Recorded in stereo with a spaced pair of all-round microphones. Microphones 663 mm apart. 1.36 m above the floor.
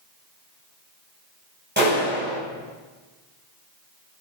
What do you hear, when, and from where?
1.8 s a clap: 15° right (ahead or behind), 8.5 m